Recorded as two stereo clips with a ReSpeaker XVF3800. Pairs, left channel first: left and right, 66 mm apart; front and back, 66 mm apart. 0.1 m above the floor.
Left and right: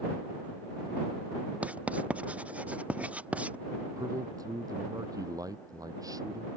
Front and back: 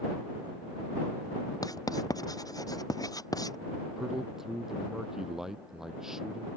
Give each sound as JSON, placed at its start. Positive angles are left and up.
{"t": 1.6, "sound": "writing", "azimuth_deg": -20}
{"t": 4.0, "sound": "a man speaking", "azimuth_deg": -95}